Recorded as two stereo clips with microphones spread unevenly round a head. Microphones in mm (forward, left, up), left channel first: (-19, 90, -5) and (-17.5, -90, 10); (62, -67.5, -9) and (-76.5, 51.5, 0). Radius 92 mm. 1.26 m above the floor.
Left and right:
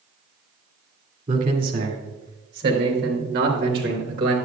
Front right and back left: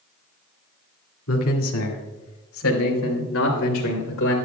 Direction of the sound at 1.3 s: 35° right.